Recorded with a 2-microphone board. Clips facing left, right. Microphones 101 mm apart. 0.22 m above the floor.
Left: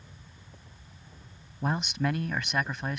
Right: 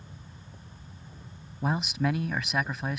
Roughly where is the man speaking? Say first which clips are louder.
Right 1 dB; centre.